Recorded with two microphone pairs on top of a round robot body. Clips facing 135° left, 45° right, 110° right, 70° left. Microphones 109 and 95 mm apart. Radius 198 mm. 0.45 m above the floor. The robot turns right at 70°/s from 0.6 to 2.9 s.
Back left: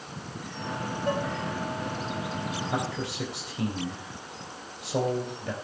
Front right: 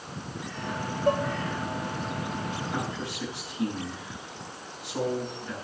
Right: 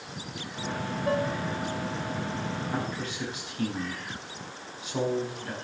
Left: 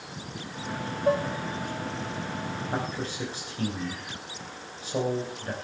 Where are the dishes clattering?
10° left, 1.3 m; by 1.3 s 30° left, 1.3 m.